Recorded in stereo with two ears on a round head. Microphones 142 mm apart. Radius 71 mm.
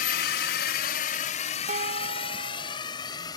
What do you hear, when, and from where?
0.0 s a drone: 60° left (ahead or behind); by 3.4 s 25° left (ahead or behind)
1.7 s dishes clattering: 50° right (ahead or behind)